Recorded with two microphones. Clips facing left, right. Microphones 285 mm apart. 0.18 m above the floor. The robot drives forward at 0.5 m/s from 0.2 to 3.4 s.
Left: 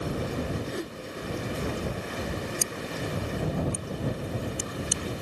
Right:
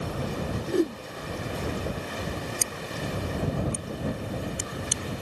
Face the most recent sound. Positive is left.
turn(degrees=5)  # may be behind; listen again after turning